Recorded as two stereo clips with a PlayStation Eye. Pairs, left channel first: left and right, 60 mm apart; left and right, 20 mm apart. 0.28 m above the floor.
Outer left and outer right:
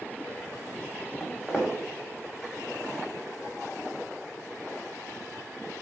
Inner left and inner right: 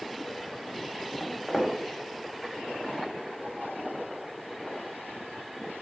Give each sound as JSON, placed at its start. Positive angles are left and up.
{"t": 1.2, "sound": "footsteps", "side_deg": 0, "distance_m": 1.2}